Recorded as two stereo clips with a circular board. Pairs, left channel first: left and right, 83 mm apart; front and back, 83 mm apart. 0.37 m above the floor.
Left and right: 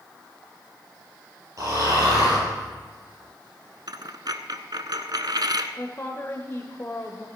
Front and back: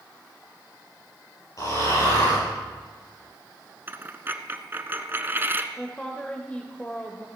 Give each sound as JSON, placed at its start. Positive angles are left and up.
{"t": 1.6, "sound": "snoring", "azimuth_deg": -45, "distance_m": 7.5}
{"t": 3.9, "sound": "a dropped coin", "azimuth_deg": -120, "distance_m": 0.8}
{"t": 5.8, "sound": "a woman speaking", "azimuth_deg": 60, "distance_m": 1.0}